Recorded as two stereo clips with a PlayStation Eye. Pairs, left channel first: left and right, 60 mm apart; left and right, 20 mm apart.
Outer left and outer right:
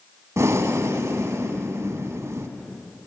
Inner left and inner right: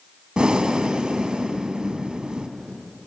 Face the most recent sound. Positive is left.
turn(degrees=-55)  # may be behind; listen again after turning